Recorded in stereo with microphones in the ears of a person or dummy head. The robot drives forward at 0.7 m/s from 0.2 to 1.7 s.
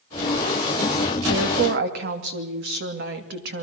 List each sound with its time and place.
1.3 s a woman speaking: 60° right (ahead or behind), 2.5 m; by 3.6 s 55° right (ahead or behind), 2.5 m